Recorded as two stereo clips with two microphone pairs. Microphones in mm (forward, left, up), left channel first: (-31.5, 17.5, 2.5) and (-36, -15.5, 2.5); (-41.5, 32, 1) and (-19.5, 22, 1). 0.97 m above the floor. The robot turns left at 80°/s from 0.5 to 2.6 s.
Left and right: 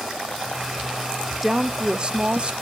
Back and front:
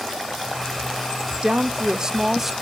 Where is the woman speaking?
15° right, 0.5 m; by 2.5 s 105° right, 0.5 m.